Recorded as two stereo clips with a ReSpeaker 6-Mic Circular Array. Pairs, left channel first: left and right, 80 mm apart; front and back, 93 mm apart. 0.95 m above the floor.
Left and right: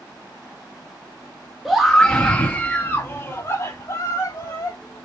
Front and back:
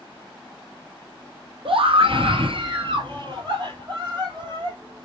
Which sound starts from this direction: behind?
A scream, at 1.6 s.